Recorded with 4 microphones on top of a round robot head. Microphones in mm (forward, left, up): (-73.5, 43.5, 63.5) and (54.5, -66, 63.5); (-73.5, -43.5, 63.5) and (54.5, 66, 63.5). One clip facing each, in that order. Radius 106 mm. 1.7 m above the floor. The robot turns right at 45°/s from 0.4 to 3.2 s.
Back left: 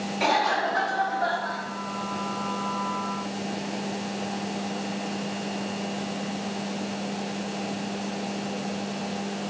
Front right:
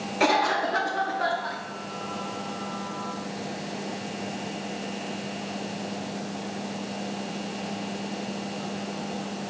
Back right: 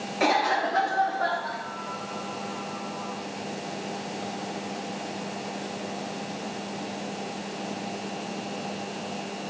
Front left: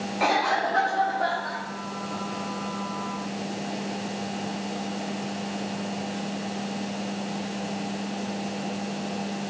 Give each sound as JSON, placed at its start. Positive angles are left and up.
{"t": 0.2, "sound": "a cough", "azimuth_deg": -75, "distance_m": 0.6}